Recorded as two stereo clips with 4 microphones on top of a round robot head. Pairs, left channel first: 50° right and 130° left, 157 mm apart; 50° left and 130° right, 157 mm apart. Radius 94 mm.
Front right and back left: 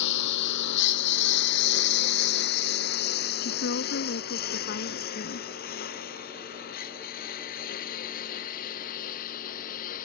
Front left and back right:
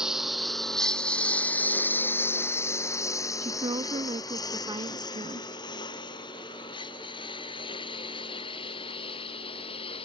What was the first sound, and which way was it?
A lawn mower, 45° right.